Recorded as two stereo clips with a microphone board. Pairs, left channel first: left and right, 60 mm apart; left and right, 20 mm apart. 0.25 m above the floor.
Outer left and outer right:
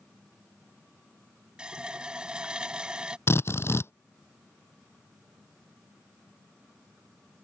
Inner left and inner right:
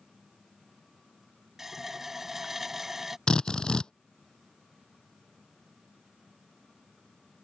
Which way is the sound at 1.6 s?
15° right (ahead or behind).